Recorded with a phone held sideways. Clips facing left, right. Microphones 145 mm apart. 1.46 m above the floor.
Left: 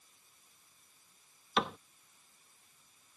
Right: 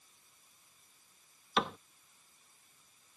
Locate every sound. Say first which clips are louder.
1.6 s a cupboard door: even; centre (ahead or behind)